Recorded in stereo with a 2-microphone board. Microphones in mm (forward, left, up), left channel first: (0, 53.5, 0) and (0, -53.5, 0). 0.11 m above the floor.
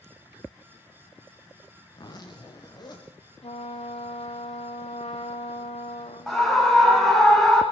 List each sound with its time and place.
1.9 s a zipper: 40° left (ahead or behind), 4 m
3.4 s a trumpet: 70° left (ahead or behind), 1.6 m
6.3 s a scream: centre (ahead or behind), 6 m